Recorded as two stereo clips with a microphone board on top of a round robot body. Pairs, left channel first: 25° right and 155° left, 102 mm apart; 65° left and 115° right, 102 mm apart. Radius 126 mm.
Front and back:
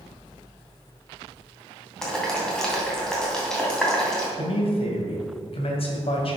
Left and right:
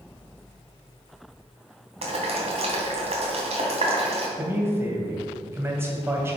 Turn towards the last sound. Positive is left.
turn(degrees=-45)